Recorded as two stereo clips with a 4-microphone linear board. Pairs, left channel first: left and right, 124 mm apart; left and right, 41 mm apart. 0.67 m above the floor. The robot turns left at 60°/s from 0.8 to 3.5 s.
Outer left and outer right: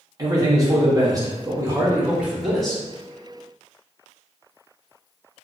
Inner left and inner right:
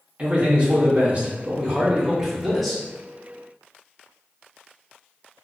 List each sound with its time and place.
0.2 s a man speaking: 30° right (ahead or behind), 0.7 m; by 2.8 s 5° left (ahead or behind), 0.7 m